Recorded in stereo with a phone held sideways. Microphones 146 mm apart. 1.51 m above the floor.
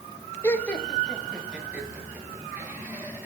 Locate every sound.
0.4 s laughter: 20° left (ahead or behind), 1.0 m; by 3.3 s 15° right (ahead or behind), 4.5 m